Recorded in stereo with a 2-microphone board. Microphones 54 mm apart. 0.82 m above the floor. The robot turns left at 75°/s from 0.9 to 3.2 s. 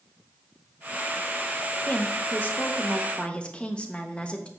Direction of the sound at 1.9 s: 135° left.